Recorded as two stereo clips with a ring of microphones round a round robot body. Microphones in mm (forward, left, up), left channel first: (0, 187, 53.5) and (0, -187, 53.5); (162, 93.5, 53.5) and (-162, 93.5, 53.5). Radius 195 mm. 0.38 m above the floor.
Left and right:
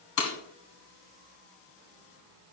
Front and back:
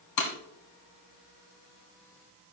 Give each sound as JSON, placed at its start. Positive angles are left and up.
{"t": 0.2, "sound": "breaking glass", "azimuth_deg": 35, "distance_m": 1.8}